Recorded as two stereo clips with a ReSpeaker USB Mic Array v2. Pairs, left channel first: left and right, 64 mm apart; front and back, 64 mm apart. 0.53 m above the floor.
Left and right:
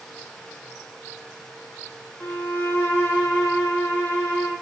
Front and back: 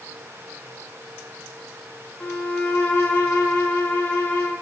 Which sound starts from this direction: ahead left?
A violin, at 2.2 s.